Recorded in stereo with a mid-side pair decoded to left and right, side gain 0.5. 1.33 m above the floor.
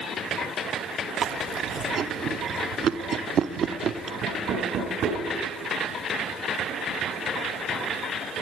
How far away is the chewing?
About 0.7 m.